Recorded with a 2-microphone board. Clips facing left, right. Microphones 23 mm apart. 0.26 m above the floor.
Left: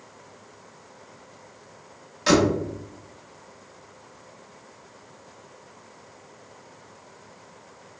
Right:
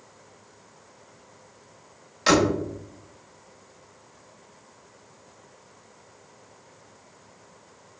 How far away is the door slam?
About 0.6 m.